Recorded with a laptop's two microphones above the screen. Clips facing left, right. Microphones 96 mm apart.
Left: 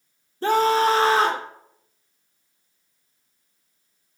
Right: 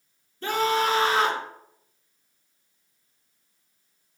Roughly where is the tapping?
I don't hear tapping.